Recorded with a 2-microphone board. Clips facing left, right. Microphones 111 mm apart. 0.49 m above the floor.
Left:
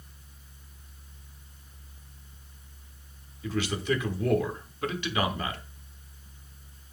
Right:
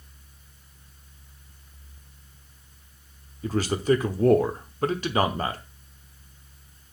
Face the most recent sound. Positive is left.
turn(degrees=-40)  # may be behind; listen again after turning